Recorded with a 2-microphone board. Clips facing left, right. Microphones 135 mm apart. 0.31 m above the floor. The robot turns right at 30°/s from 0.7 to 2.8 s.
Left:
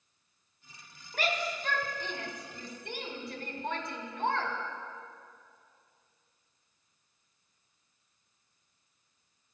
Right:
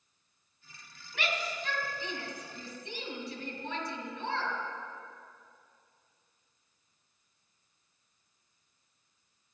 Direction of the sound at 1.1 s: 45° left (ahead or behind).